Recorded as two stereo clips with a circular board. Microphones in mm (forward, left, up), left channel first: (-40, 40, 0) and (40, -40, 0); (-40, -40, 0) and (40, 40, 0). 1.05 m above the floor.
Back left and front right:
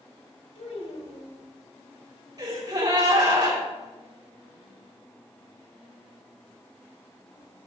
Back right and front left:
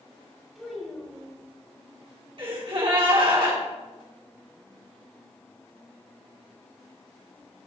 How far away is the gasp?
About 3 m.